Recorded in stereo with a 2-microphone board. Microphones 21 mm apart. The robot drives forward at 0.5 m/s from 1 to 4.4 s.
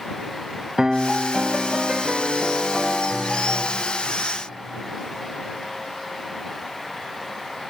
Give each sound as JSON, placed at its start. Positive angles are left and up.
{"t": 0.8, "sound": "a piano", "side_deg": -30, "distance_m": 0.5}